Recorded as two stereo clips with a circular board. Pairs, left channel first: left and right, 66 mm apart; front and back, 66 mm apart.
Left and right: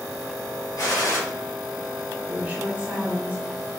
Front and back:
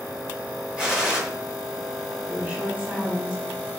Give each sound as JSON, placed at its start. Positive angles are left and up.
{"t": 0.8, "sound": "a gunshot", "azimuth_deg": 105, "distance_m": 2.0}
{"t": 2.3, "sound": "a woman speaking", "azimuth_deg": -135, "distance_m": 1.4}